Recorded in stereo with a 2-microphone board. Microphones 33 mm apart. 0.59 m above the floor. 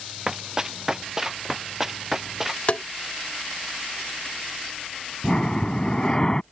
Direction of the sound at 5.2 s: 25° left (ahead or behind).